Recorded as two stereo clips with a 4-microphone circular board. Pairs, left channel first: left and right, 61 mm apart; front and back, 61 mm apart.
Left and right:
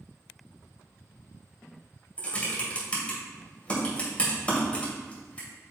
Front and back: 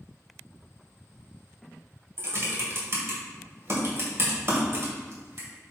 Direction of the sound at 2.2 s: 155° left.